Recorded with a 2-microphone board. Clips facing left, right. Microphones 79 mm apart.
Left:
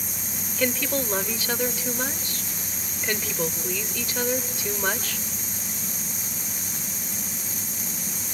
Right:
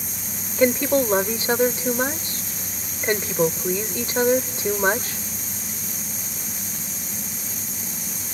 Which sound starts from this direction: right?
A woman speaking, at 0.6 s.